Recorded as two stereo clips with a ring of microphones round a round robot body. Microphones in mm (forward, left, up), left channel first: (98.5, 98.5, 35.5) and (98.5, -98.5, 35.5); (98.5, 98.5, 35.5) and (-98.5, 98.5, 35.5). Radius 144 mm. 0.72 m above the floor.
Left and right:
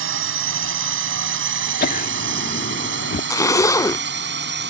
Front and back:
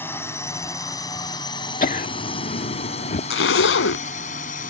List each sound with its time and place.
0.0 s a drone: 80° right; by 4.7 s 65° right
1.8 s laughter: 50° left
3.3 s a zipper: 15° left